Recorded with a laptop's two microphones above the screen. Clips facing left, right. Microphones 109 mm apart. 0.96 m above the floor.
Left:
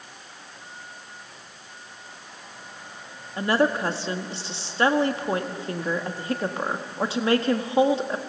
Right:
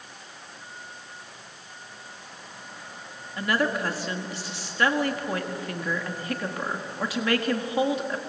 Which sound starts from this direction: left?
A woman speaking, at 3.4 s.